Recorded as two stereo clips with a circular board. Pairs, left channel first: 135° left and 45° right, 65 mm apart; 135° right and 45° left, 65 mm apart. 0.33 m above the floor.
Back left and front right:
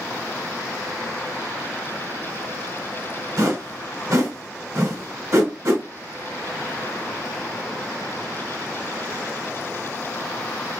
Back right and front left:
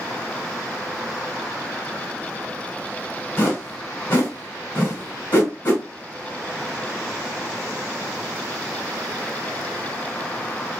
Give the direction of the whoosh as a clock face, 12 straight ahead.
3 o'clock.